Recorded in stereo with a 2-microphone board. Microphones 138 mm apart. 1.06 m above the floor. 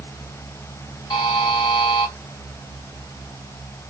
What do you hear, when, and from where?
1.1 s a buzzer: 30° left (ahead or behind), 1.5 m